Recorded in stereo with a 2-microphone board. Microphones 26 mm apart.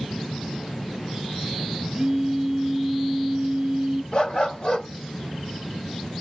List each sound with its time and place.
1.9 s a phone buzzing: 15° right (ahead or behind), 1.6 m
4.1 s a dog barking: 35° left (ahead or behind), 1.3 m